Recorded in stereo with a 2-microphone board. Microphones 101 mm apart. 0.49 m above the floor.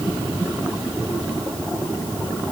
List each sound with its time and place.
Only background noise.